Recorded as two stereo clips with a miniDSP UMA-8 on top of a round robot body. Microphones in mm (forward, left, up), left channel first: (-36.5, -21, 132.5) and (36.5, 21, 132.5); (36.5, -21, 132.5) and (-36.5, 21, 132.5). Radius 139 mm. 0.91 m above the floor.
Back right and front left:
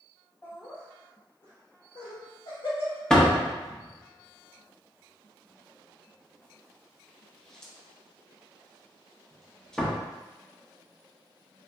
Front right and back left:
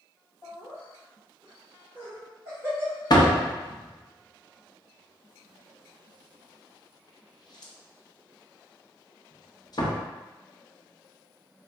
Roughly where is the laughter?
Right.